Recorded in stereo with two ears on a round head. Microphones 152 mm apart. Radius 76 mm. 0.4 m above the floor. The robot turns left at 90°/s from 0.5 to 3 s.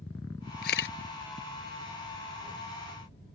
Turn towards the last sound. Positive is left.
turn(degrees=-90)